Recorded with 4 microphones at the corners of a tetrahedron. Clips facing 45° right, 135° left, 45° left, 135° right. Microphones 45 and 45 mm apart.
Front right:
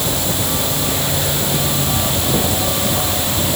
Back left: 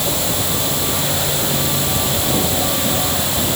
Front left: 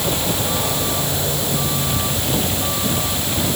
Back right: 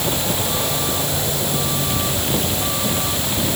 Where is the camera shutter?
I don't hear a camera shutter.